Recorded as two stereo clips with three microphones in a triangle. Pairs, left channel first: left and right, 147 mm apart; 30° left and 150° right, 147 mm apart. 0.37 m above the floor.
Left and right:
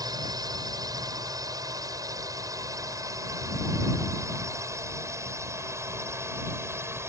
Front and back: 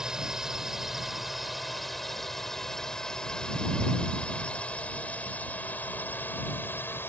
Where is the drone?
70° right; by 7.1 s 35° right.